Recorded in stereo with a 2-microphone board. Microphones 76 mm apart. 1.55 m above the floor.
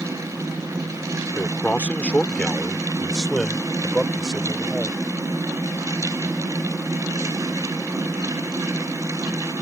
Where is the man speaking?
25° left (ahead or behind); by 5.0 s 5° right (ahead or behind).